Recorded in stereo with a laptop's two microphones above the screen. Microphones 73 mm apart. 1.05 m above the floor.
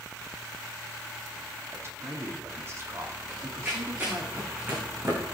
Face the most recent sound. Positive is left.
turn(degrees=-35)  # may be behind; listen again after turning